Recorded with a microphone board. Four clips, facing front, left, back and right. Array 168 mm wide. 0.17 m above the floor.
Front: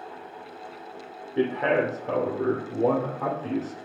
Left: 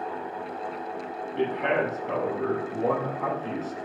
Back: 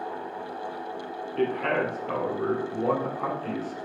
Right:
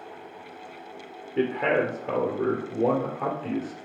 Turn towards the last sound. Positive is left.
turn(degrees=-50)